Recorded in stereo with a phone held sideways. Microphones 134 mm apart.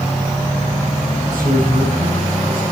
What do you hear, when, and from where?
1.2 s a man speaking: 85° right, 7.5 m